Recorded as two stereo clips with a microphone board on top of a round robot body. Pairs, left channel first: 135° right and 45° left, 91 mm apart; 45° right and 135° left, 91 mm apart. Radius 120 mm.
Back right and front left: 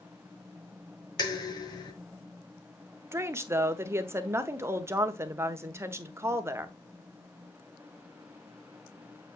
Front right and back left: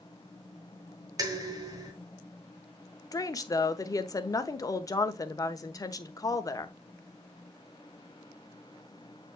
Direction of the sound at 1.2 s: Straight behind.